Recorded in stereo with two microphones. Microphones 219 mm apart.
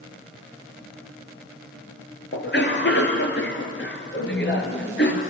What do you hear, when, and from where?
2.3 s a cough: 55° left (ahead or behind), 3.5 m
4.1 s a woman speaking: 80° left, 6 m